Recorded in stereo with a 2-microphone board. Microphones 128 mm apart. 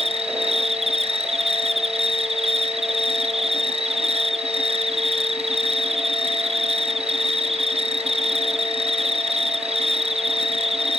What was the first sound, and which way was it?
An insect, 50° right (ahead or behind).